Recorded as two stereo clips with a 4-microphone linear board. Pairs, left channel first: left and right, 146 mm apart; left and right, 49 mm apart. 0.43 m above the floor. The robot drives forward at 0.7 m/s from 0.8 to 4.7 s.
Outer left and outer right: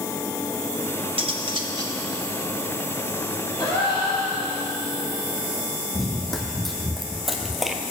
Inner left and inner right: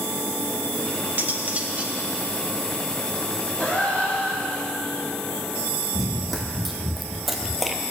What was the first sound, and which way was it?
Cutlery clinking, 40° right (ahead or behind).